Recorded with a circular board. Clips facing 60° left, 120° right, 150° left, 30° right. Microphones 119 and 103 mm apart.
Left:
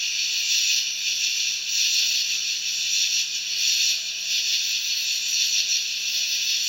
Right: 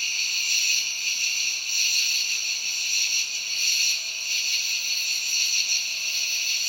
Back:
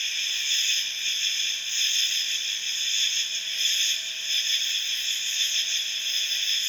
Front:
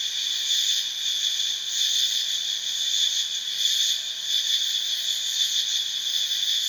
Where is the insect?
100° right, 0.9 m.